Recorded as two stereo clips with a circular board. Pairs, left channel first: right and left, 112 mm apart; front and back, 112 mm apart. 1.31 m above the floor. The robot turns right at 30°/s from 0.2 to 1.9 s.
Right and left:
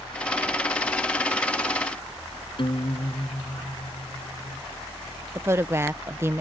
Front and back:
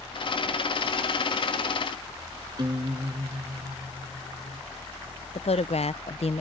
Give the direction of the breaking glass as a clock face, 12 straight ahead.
I don't hear breaking glass.